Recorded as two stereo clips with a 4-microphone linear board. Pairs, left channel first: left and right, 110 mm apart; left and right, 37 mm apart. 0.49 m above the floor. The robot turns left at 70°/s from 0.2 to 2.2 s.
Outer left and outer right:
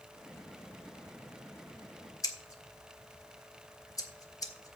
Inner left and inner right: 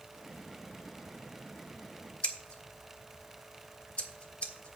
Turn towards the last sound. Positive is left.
turn(degrees=35)  # may be behind; listen again after turning